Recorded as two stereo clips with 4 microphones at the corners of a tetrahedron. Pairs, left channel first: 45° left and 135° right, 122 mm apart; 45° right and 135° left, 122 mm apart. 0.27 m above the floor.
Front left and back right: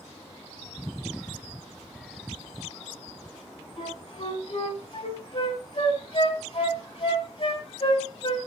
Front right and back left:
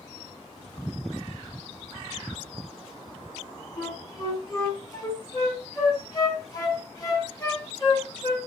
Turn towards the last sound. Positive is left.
turn(degrees=5)